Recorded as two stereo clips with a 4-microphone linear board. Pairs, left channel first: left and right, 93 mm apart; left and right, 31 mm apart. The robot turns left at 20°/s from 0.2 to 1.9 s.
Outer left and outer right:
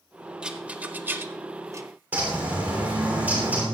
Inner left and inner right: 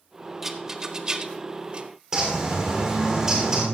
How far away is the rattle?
About 0.8 m.